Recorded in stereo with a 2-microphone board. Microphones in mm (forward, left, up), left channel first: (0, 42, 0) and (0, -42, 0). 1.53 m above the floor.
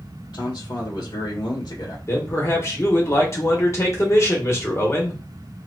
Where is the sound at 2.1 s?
35° left (ahead or behind), 1.2 m.